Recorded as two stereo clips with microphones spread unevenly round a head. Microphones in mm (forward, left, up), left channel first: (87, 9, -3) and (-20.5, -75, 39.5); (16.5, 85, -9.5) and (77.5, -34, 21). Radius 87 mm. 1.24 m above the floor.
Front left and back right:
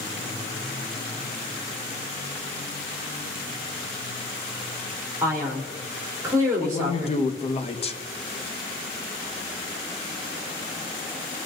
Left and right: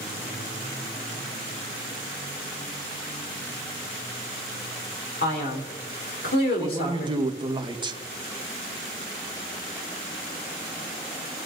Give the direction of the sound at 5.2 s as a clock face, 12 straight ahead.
7 o'clock.